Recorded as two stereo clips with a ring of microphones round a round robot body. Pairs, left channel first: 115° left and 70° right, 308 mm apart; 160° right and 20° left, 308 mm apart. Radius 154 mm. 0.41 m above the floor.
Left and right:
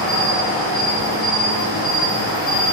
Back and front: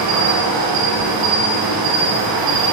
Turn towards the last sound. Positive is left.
turn(degrees=60)